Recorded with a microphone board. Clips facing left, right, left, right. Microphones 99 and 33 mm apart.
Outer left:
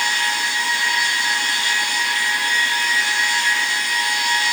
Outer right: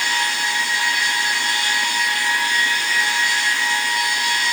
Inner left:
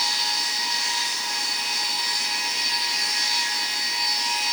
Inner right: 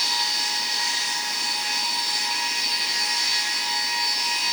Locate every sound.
Only background noise.